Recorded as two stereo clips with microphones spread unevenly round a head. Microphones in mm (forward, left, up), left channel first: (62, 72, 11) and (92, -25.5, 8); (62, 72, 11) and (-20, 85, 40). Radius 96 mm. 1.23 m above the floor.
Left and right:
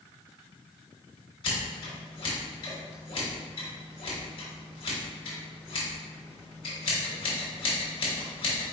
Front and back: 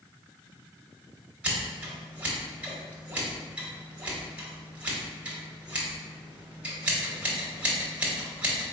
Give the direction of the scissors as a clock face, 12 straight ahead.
8 o'clock.